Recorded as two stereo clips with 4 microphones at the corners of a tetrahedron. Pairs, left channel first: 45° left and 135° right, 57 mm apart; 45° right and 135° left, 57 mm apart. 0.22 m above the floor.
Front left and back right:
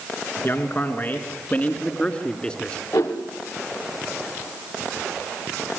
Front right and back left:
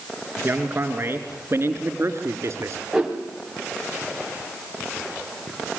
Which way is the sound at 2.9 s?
55° left.